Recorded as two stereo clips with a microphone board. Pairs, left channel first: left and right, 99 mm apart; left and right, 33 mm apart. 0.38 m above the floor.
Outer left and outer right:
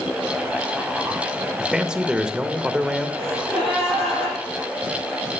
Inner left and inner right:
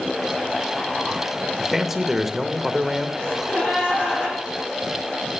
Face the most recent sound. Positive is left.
turn(degrees=60)  # may be behind; listen again after turning